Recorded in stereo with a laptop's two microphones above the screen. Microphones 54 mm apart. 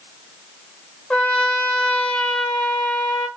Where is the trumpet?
15° left (ahead or behind), 0.8 m.